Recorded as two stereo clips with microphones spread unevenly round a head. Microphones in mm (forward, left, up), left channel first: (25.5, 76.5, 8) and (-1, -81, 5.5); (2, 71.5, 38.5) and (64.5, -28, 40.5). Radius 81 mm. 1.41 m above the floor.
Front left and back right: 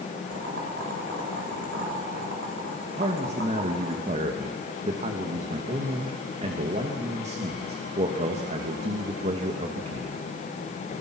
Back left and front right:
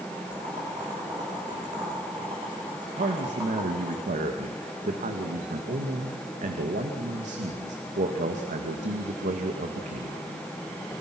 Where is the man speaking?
50° right, 2 m.